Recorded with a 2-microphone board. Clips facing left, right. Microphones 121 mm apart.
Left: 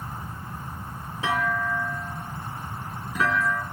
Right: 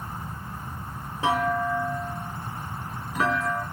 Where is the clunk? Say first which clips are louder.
Right 2 dB; 35° right (ahead or behind), 3.5 m.